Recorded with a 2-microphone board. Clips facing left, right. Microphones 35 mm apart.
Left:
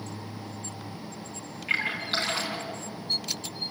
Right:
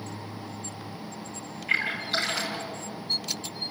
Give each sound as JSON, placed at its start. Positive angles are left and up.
{"t": 1.7, "sound": "a splash", "side_deg": 35, "distance_m": 4.5}